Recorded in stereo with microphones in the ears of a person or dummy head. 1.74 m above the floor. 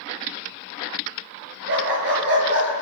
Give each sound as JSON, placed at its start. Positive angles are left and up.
{"t": 1.7, "sound": "a dog barking", "side_deg": -65, "distance_m": 8.0}